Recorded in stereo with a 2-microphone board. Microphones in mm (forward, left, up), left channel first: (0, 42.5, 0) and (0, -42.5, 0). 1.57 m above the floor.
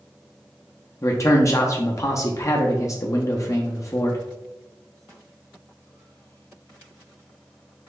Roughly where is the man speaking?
Left.